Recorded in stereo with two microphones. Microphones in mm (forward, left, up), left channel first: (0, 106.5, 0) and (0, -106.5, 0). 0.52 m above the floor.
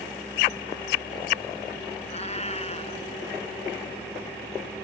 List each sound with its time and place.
2.1 s a cat meowing: 35° left (ahead or behind)